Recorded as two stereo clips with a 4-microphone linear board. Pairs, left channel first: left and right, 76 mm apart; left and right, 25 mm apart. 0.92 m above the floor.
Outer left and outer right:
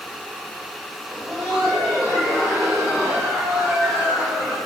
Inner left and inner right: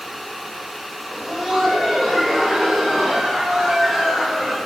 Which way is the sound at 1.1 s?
20° right (ahead or behind).